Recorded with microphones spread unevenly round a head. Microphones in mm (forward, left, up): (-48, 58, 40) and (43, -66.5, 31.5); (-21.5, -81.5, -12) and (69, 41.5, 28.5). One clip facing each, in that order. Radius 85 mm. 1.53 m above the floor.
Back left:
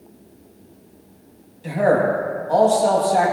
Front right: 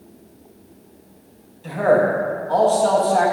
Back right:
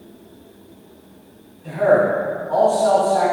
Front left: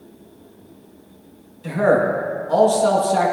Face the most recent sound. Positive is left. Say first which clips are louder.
# front right 1 dB, back right 1 dB
turn(degrees=50)